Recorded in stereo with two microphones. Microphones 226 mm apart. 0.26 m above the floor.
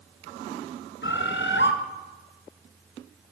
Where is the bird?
60° left (ahead or behind), 1.2 m.